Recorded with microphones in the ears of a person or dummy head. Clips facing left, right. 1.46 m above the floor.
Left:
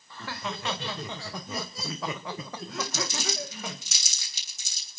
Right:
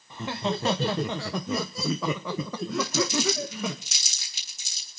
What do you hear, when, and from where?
0.1 s laughter: 10° right (ahead or behind), 1.1 m; by 3.8 s 75° right (ahead or behind), 2.0 m
2.8 s crumpling: 75° left (ahead or behind), 7.5 m